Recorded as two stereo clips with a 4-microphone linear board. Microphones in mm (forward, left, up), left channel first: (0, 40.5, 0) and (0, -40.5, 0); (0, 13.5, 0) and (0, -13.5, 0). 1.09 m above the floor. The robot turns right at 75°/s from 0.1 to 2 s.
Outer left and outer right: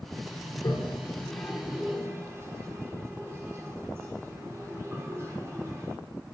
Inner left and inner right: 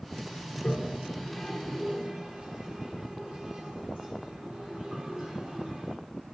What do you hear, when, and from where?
0.5 s a toilet flushing: 50° left (ahead or behind), 1.0 m; by 6.0 s 35° right (ahead or behind), 1.0 m